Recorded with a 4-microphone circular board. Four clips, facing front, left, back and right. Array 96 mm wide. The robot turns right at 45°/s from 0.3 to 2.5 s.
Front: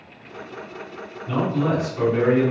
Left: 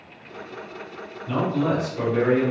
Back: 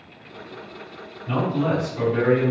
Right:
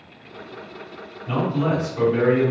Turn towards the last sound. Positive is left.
turn(degrees=-85)